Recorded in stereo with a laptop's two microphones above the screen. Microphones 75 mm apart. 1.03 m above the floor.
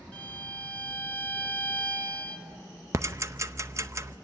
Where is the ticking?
40° right (ahead or behind), 0.7 m.